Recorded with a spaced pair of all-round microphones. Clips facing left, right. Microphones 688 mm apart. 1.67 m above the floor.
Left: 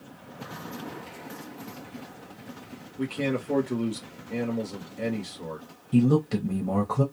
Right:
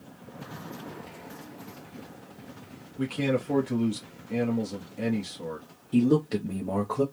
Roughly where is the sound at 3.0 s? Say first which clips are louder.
Right 1 dB; right.